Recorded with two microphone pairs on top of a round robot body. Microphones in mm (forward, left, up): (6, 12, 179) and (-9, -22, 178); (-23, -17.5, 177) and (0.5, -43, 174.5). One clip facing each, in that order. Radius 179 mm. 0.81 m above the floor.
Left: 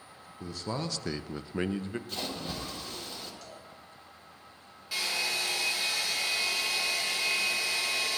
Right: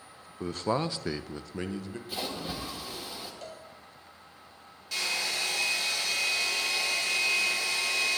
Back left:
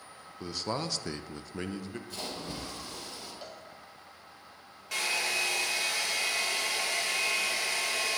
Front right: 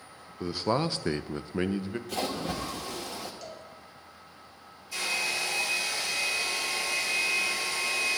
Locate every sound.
0.4 s a man speaking: 115° right, 0.8 m; by 2.0 s 15° left, 0.9 m
2.1 s a splash: 35° right, 1.7 m
3.4 s a cowbell: 165° right, 2 m
4.9 s a hair dryer: 145° left, 4 m